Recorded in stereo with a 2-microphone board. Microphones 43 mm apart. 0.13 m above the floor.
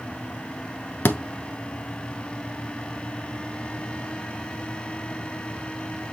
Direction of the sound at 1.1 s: 55° left (ahead or behind).